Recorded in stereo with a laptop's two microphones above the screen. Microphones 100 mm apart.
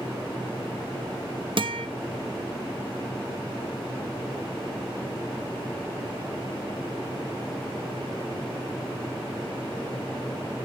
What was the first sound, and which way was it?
A guitar, 60° right (ahead or behind).